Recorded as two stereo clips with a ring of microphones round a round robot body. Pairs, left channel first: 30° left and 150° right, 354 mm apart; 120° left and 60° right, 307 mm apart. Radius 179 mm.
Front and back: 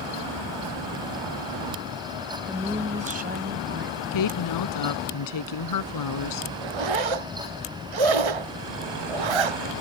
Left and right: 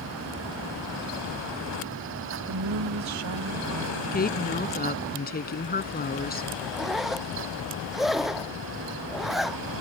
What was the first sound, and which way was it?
A woman speaking, 65° right.